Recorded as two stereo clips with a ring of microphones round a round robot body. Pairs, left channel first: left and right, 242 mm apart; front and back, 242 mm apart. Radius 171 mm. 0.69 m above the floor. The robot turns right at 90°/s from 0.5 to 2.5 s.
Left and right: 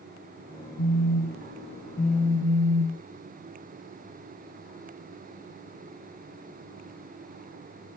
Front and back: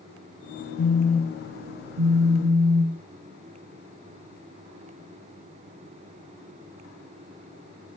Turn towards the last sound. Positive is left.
turn(degrees=-145)